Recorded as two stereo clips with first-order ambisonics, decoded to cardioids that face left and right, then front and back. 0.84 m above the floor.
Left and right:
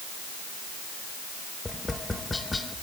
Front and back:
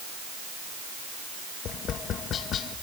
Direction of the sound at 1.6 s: 15° left.